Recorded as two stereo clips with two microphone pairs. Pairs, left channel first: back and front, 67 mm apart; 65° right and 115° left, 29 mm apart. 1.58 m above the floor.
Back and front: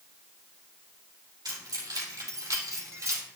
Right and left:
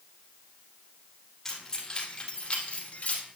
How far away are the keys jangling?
About 3 m.